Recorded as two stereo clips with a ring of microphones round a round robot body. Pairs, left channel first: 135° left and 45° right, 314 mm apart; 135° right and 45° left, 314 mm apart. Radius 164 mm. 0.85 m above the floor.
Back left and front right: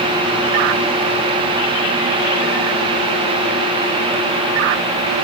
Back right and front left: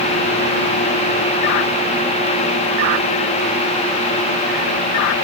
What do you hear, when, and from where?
Only background noise.